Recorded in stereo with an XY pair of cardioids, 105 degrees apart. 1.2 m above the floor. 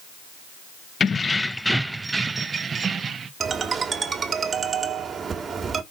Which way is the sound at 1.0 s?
40° left.